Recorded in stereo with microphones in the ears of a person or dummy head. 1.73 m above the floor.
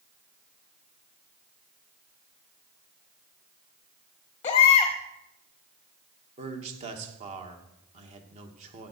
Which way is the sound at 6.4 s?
35° right (ahead or behind).